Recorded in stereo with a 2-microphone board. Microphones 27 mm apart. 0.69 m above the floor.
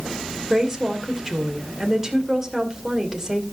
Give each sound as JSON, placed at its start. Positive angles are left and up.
{"t": 0.5, "sound": "a woman speaking", "side_deg": -20, "distance_m": 2.5}